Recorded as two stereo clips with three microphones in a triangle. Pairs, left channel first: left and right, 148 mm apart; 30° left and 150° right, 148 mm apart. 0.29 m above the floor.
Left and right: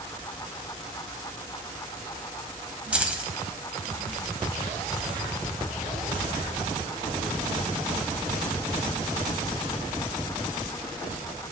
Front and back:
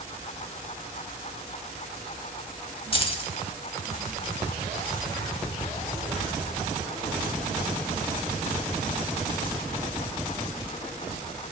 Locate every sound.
2.9 s keys jangling: 10° right, 0.8 m